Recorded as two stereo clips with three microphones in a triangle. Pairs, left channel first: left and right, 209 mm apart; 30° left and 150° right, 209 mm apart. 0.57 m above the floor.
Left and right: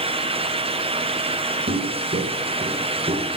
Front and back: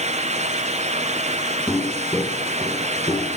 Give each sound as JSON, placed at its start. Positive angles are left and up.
{"t": 1.7, "sound": "footsteps", "azimuth_deg": -60, "distance_m": 1.9}